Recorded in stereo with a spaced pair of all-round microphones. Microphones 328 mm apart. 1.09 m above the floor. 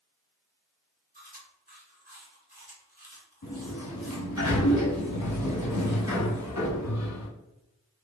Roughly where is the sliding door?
Left.